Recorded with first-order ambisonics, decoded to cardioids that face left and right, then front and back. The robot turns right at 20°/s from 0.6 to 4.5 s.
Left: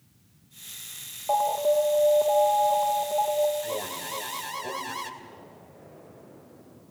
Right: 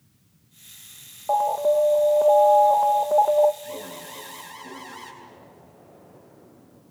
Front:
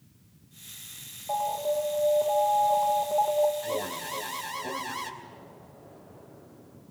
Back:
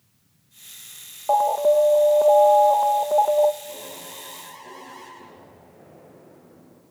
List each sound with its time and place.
1.3 s an alarm: 165° right, 0.6 m; by 3.5 s 120° right, 0.6 m
3.6 s an alarm: 35° left, 3 m; by 5.1 s 55° left, 3 m
5.2 s an explosion: 160° left, 8 m